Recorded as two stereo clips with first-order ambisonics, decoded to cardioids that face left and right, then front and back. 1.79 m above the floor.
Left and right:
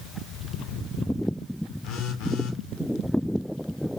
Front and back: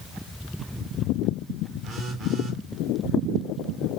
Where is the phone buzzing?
115° left, 0.6 m.